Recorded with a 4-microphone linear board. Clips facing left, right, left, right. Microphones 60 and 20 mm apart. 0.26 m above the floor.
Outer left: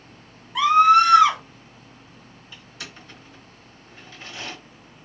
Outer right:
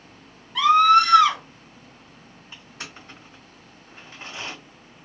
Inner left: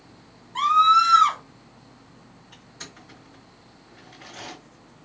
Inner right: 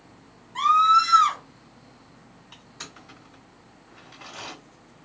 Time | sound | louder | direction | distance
0.6 | a scream | outer left 1 dB, inner left 1 dB | 10° left (ahead or behind) | 1.8 m
2.5 | crushing | outer right 1 dB, inner right 1 dB | 35° right (ahead or behind) | 2.0 m